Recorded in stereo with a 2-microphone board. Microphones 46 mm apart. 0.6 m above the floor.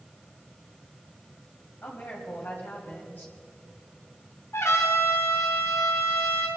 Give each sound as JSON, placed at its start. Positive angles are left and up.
{"t": 1.8, "sound": "a woman speaking", "side_deg": 45, "distance_m": 3.0}
{"t": 4.5, "sound": "a trumpet", "side_deg": 75, "distance_m": 3.5}